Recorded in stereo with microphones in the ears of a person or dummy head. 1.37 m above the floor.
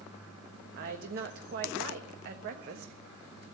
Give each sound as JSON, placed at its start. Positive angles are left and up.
{"t": 0.8, "sound": "a woman speaking", "side_deg": -50, "distance_m": 1.4}